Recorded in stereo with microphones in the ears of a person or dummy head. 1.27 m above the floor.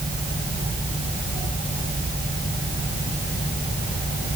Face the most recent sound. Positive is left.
No sound to turn to.